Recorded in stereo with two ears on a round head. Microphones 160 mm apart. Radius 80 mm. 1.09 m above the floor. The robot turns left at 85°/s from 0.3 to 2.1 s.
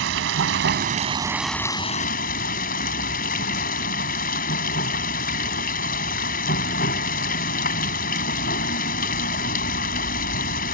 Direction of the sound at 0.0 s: 80° right.